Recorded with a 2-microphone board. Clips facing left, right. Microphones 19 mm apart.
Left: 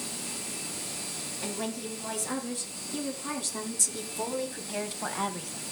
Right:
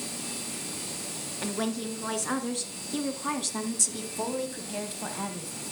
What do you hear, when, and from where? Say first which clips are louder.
1.4 s a woman speaking: right 5 dB; 40° right (ahead or behind), 3.5 m; by 5.6 s 30° left (ahead or behind), 1.6 m